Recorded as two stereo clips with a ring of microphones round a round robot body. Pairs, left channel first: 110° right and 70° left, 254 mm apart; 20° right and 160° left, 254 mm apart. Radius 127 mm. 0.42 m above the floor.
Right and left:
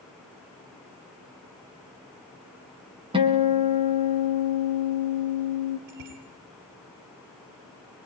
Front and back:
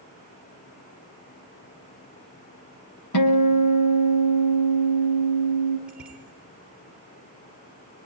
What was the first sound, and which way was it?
A guitar, 5° right.